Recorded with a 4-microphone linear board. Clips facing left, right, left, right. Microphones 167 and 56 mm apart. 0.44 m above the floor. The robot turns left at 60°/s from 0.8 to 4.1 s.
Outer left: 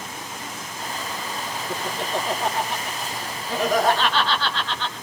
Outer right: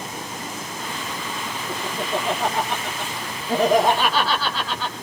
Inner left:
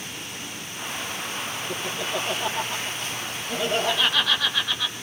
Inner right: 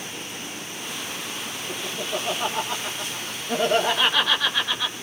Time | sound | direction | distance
1.7 | laughter | 30° right (ahead or behind) | 5.5 m